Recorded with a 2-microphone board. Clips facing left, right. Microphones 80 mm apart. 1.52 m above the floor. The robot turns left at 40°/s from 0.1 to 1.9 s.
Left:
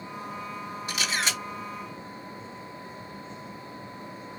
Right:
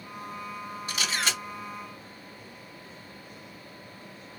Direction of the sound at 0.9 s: 35° right (ahead or behind).